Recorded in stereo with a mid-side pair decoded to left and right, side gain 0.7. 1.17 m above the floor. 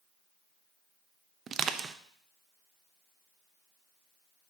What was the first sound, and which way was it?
Crushing, 35° right.